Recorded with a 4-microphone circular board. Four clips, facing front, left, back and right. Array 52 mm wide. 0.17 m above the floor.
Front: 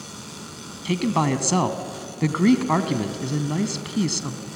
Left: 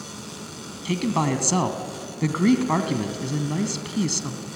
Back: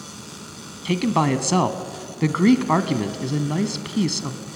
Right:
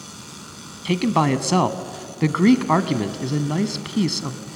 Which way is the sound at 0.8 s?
110° right.